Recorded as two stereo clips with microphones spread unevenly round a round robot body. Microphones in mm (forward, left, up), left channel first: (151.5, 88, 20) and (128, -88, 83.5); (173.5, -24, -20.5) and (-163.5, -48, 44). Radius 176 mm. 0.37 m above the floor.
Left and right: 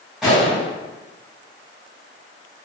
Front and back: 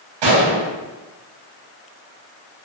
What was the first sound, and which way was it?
A gunshot, 165° left.